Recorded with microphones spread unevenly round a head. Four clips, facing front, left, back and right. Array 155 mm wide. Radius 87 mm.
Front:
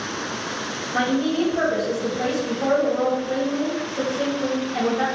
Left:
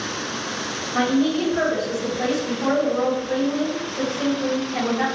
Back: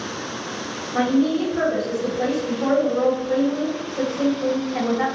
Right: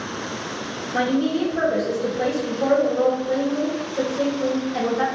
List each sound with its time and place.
0.9 s a woman speaking: 95° right, 1.8 m